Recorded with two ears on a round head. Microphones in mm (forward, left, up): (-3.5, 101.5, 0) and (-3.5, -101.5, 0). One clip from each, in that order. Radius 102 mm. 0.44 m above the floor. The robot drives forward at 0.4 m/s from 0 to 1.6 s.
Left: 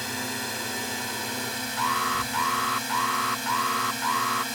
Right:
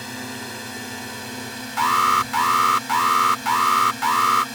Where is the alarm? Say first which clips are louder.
Right 8 dB; 40° right (ahead or behind).